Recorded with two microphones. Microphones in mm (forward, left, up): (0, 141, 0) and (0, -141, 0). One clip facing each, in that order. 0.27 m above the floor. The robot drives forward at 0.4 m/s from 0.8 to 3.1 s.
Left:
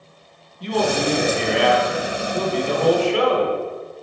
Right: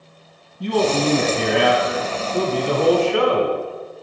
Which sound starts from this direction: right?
A man speaking, at 0.6 s.